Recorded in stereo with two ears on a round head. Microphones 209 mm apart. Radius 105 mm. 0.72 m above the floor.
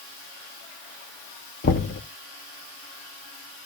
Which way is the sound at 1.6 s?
40° left (ahead or behind).